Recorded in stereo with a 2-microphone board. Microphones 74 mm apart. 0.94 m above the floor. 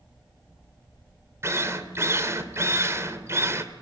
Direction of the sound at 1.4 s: 35° right (ahead or behind).